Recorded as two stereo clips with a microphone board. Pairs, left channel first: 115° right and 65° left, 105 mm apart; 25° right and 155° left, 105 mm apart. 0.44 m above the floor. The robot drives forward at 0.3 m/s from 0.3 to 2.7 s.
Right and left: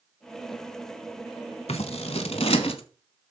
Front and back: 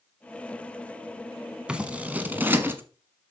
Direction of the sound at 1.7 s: 125° right.